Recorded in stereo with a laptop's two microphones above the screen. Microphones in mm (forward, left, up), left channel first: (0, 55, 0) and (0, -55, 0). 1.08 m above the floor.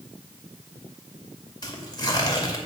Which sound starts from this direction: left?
Tearing paper, at 1.6 s.